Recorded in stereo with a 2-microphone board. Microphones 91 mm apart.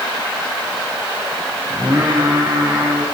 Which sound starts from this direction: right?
Singing, at 1.7 s.